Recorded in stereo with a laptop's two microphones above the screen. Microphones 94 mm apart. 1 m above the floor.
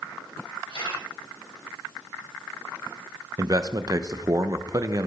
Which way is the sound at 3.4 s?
40° right (ahead or behind).